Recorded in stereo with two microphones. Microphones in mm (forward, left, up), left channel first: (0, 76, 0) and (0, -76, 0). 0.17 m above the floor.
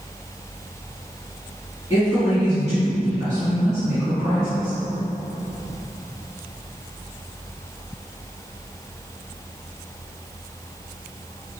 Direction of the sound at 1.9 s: 20° right (ahead or behind).